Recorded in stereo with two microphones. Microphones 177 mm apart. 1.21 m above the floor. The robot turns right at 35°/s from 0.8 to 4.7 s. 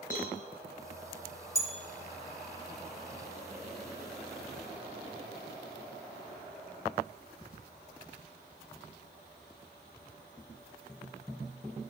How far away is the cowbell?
About 6 m.